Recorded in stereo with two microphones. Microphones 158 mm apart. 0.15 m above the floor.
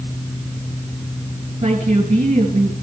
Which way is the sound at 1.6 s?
45° right (ahead or behind).